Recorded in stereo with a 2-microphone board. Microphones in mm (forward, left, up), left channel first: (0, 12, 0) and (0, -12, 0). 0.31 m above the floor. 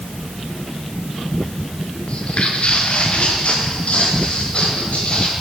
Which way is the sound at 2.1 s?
60° left (ahead or behind).